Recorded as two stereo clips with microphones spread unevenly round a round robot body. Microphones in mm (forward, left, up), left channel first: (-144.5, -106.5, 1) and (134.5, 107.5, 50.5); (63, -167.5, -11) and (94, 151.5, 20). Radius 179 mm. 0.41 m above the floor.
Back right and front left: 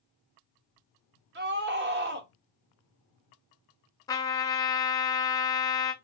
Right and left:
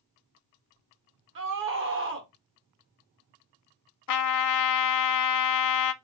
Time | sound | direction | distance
1.4 | a scream | 85° left | 1.2 m
4.1 | a trumpet | 60° right | 0.6 m